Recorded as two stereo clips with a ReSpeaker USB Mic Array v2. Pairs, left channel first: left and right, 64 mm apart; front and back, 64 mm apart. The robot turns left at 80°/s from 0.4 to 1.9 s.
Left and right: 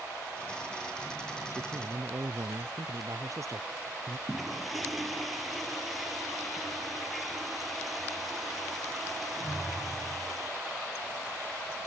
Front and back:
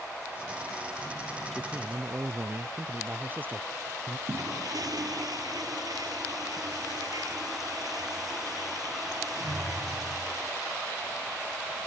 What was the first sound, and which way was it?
A man speaking, 90° right.